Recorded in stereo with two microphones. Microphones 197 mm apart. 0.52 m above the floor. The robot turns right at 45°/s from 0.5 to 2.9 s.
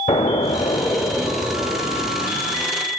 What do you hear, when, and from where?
0.1 s an explosion: 140° left, 1.0 m; by 2.7 s 125° right, 1.0 m